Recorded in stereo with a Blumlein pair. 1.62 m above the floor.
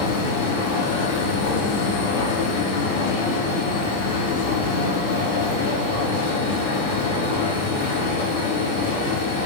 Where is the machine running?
55° left, 0.8 m.